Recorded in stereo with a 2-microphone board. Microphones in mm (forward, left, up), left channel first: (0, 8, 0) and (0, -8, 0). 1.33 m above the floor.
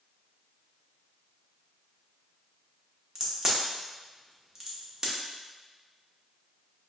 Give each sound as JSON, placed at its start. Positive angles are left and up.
{"t": 3.1, "sound": "a crack", "side_deg": -35, "distance_m": 0.7}